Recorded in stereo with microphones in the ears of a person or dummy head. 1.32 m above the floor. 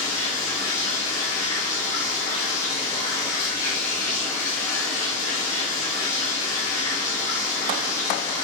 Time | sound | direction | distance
0.0 | running water | 20° left (ahead or behind) | 6 m